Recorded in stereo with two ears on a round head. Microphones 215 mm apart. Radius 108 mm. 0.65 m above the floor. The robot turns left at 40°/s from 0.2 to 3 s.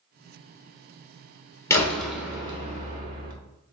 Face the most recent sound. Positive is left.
turn(degrees=-40)